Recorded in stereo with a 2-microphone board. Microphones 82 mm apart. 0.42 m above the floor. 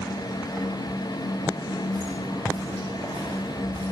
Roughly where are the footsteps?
Right.